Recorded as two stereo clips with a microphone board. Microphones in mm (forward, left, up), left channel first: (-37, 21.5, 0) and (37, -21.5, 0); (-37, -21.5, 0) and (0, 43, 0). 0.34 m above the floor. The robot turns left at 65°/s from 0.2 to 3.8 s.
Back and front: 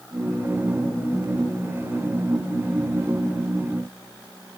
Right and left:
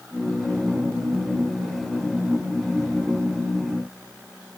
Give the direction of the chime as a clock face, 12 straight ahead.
I don't hear a chime.